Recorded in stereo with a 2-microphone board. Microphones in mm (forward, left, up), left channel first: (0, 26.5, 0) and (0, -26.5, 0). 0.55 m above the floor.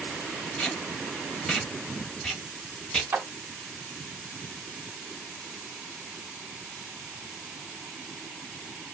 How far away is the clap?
About 0.8 m.